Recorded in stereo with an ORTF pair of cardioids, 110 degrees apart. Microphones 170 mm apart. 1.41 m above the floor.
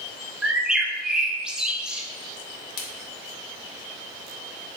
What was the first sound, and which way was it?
A bird, 5° right.